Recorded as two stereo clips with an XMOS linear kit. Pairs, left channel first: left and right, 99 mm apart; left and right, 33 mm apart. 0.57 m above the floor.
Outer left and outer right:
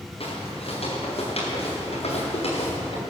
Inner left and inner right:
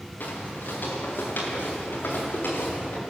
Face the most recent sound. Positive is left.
turn(degrees=85)